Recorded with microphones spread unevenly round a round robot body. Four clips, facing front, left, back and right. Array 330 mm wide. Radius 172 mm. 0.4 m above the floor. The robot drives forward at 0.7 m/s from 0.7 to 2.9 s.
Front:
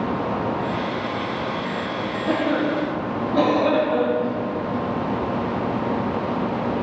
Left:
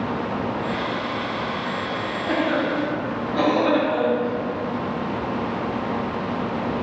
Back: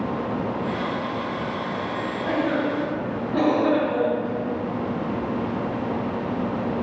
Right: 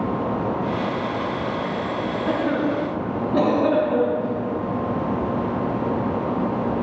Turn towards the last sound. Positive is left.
turn(degrees=-70)